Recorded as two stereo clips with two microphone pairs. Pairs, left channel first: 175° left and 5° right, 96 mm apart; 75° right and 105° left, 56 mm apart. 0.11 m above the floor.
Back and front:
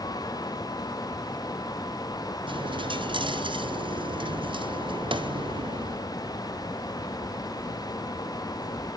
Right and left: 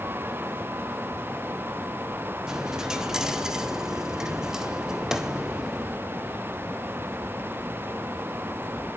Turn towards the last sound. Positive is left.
turn(degrees=25)